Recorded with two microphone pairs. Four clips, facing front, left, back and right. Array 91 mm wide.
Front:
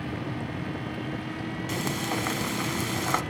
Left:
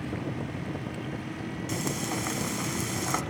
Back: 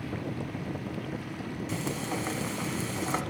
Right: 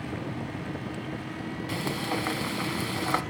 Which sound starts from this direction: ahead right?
Frying, at 1.7 s.